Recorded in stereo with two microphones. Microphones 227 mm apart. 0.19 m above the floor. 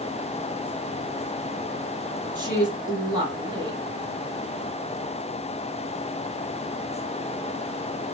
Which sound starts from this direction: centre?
A woman speaking, at 2.4 s.